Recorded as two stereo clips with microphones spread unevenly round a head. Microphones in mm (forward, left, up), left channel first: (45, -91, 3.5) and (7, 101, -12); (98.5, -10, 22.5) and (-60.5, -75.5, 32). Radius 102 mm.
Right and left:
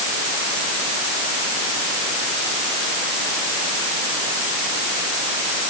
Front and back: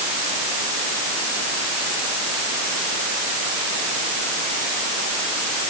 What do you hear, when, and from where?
Only background noise.